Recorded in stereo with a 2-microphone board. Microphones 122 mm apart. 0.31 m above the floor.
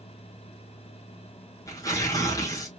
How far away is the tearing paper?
About 2 m.